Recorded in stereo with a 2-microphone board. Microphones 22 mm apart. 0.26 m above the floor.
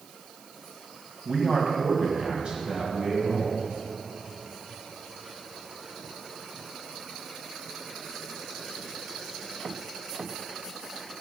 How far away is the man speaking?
About 1.6 m.